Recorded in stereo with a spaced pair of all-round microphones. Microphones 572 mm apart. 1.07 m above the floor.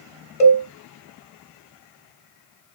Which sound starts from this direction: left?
A cowbell, at 0.4 s.